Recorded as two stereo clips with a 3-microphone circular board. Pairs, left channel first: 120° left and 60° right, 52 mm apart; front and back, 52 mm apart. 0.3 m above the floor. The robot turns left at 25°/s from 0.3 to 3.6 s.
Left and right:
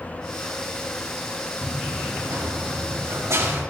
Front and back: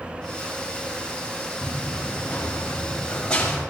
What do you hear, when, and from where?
1.6 s running footsteps: 25° right, 2.0 m; by 3.6 s 75° right, 4.5 m